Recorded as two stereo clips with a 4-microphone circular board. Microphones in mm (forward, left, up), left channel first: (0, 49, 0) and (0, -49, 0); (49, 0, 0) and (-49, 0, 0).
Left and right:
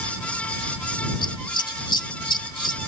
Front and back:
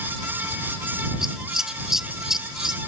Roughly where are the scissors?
Left.